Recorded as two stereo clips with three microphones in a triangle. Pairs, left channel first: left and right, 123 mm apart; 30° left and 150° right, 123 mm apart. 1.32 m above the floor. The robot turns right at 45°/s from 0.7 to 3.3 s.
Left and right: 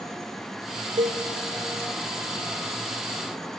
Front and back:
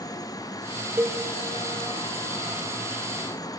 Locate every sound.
1.0 s a cowbell: 80° right, 0.7 m; by 1.2 s 70° right, 0.7 m